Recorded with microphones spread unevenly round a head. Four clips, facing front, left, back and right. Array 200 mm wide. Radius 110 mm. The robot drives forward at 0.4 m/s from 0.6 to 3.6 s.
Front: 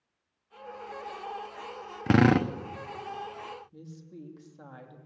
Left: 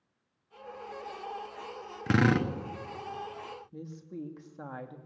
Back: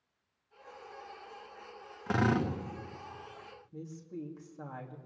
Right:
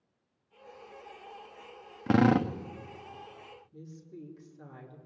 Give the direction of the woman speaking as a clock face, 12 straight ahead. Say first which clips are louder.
Left 5 dB, back 3 dB; 9 o'clock.